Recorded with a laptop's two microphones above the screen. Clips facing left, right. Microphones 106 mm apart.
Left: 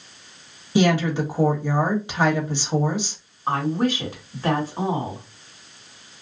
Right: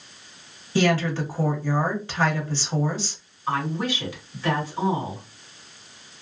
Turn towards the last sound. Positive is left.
turn(degrees=40)  # may be behind; listen again after turning